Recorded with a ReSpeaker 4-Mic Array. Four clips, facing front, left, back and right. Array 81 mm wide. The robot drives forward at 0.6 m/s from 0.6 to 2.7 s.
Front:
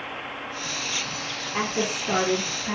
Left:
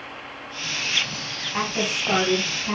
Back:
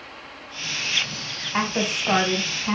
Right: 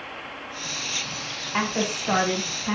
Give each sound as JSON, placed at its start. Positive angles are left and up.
{"t": 1.5, "sound": "a woman speaking", "azimuth_deg": -160, "distance_m": 1.6}